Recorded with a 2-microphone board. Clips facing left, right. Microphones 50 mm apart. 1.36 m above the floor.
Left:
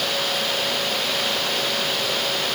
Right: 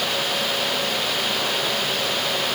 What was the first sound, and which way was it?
Only background noise.